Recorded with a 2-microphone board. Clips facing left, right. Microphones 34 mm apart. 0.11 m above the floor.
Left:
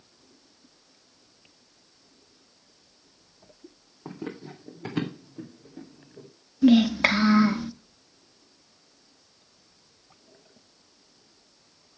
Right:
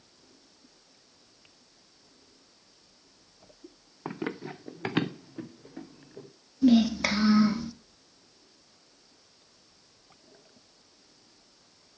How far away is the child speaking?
About 0.8 m.